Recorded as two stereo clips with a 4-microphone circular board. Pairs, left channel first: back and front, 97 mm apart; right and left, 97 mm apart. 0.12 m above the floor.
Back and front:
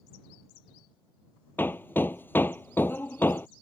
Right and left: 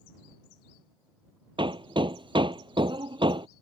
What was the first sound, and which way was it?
Hammering, 115° left.